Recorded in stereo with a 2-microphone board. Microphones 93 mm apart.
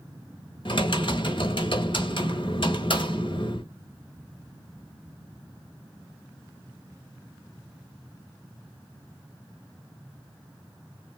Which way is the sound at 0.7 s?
65° left (ahead or behind).